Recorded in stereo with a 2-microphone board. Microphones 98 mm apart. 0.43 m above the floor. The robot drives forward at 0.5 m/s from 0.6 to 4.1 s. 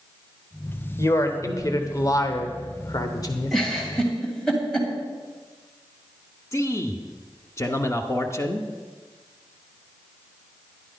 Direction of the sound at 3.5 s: 5° left (ahead or behind).